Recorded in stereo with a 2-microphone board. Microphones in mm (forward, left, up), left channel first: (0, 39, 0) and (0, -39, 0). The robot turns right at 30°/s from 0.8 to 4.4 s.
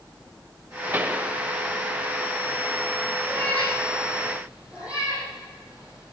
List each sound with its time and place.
0.9 s a pop: 25° right (ahead or behind), 1.0 m; by 1.3 s 20° right (ahead or behind), 1.0 m
3.3 s a cat meowing: 20° left (ahead or behind), 7 m; by 6.1 s 15° right (ahead or behind), 7 m